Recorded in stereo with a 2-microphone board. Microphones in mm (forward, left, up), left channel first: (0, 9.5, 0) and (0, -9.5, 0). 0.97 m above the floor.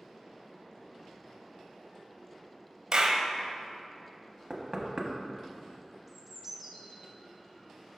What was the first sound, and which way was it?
A clap, 40° right (ahead or behind).